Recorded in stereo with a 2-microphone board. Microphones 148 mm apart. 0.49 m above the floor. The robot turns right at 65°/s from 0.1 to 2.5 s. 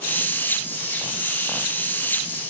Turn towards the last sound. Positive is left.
No sound to turn to.